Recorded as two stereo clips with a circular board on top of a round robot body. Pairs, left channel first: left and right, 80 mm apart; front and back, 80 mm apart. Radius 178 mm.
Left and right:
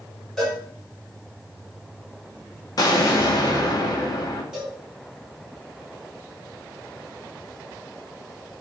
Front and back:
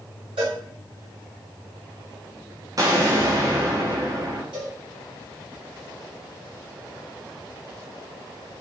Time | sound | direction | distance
0.4 | a cowbell | 175° left | 4 m
2.8 | an explosion | 135° left | 1.1 m
4.5 | a cowbell | 170° right | 5 m